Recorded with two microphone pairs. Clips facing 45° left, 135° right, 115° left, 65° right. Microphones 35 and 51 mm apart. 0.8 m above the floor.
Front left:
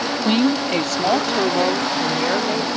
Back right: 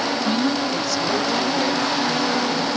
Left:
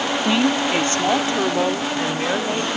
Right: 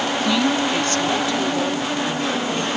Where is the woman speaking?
55° left; by 2.7 s 65° left.